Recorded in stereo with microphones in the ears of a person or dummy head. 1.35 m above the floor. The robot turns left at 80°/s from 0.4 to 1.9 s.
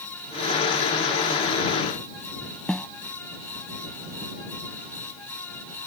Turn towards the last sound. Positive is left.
turn(degrees=10)  # may be behind; listen again after turning